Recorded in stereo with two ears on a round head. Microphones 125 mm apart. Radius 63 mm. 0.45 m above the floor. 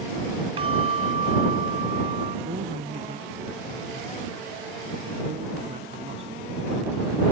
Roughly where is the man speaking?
Right.